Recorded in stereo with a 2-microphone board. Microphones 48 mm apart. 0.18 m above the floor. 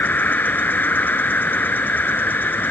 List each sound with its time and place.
0.0 s an insect: 45° left (ahead or behind)